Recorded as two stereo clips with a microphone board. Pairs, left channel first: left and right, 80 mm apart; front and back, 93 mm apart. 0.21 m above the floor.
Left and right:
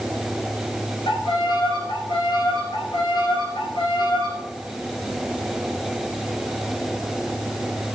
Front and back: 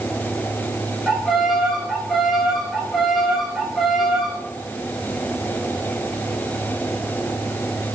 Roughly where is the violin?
Left.